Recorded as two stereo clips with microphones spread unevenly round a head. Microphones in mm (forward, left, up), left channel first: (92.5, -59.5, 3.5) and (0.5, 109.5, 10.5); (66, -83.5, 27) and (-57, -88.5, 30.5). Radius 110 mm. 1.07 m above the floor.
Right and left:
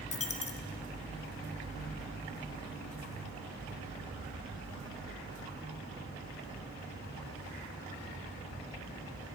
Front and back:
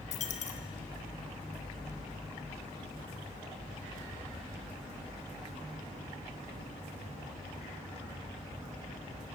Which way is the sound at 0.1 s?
10° right.